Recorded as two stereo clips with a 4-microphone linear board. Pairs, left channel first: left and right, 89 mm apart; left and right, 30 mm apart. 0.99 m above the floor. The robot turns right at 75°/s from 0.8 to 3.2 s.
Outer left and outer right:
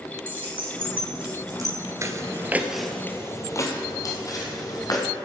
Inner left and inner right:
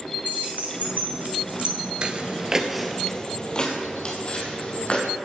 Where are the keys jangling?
75° right (ahead or behind), 3.5 m; by 1.8 s 30° right (ahead or behind), 3.5 m.